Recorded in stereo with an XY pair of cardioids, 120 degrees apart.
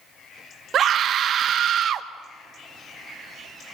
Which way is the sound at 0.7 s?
50° right.